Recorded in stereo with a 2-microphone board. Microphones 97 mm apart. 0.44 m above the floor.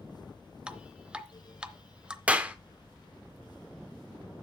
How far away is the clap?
About 0.8 m.